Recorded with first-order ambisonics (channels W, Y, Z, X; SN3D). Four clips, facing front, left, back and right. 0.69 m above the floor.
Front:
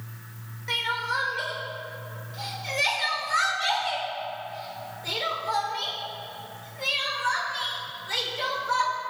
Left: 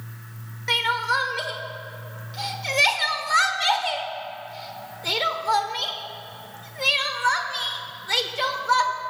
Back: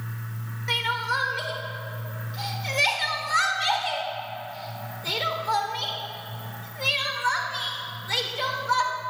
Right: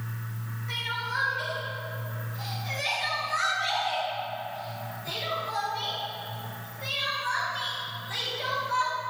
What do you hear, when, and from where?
0.7 s crying: 105° left, 1.3 m